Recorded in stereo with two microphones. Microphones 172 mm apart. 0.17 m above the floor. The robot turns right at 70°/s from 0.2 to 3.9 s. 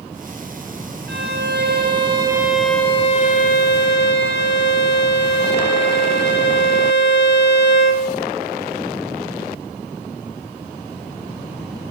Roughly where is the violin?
Right.